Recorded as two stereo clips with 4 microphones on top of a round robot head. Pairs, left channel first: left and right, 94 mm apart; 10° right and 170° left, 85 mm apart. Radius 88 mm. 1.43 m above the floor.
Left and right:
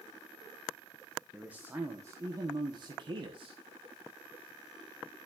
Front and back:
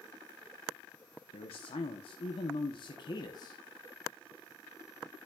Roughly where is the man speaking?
Ahead.